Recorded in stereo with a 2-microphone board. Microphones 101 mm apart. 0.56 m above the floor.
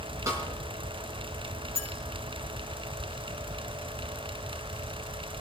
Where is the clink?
80° right, 4 m.